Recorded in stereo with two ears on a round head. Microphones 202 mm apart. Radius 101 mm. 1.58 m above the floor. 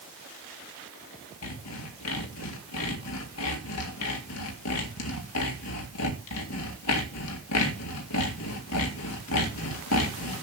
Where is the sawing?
80° left, 2 m.